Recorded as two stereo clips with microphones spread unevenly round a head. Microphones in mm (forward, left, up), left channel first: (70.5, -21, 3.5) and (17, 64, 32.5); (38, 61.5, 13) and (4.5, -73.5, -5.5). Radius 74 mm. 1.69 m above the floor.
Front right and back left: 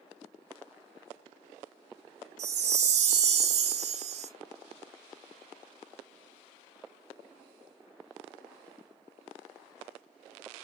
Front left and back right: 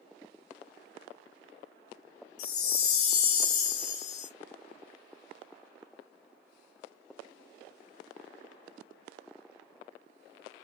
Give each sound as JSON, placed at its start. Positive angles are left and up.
{"t": 2.4, "sound": "a chime", "azimuth_deg": 125, "distance_m": 0.7}